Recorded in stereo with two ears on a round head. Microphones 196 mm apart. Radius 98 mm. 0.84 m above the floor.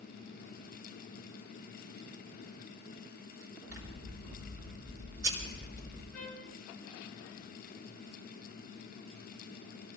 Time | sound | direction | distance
3.7 | scissors | 60° right (ahead or behind) | 5 m
6.1 | a trumpet | 10° left (ahead or behind) | 9.5 m